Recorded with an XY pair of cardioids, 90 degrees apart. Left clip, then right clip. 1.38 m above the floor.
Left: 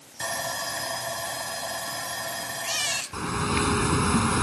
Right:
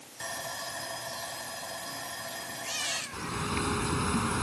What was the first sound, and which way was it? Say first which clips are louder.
Sawing: left 7 dB; 55° left.